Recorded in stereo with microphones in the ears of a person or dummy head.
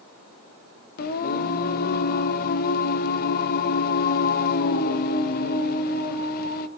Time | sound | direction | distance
1.0 | singing | 60° left (ahead or behind) | 1.4 m